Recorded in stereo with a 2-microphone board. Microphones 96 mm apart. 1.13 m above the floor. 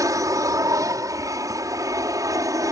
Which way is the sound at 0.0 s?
35° right (ahead or behind).